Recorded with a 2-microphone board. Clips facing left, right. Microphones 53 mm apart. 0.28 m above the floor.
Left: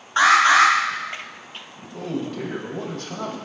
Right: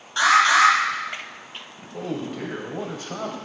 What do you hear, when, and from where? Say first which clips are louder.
0.2 s an alarm: left 2 dB; 35° left (ahead or behind), 1.9 m
1.9 s a man speaking: left 1 dB; 15° right (ahead or behind), 1.5 m